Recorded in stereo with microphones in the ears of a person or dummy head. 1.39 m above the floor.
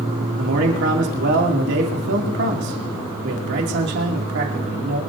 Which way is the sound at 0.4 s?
55° right (ahead or behind).